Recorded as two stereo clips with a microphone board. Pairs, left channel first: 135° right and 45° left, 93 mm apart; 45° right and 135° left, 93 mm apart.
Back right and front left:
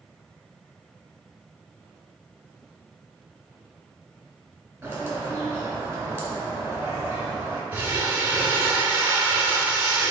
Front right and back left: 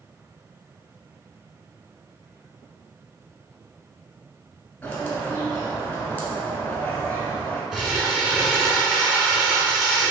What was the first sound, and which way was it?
A bird, 5° left.